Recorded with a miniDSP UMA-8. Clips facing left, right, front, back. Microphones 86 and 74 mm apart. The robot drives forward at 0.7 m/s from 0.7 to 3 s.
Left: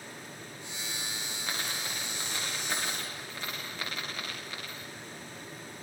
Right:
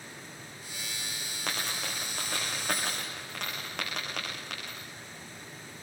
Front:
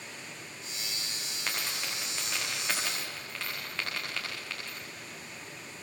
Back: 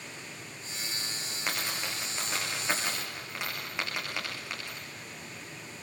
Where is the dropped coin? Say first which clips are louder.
Right 2 dB, back 2 dB; 100° right, 9.5 m; by 4.9 s 110° right, 9.5 m.